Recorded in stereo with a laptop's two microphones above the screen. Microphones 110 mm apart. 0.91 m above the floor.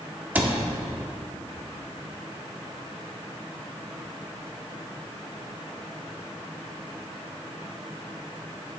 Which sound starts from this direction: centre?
A cupboard door, at 0.3 s.